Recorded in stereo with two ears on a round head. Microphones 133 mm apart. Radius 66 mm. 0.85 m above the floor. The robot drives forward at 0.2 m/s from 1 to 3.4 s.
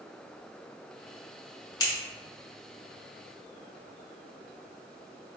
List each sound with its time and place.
1.8 s scissors: 25° left (ahead or behind), 1.2 m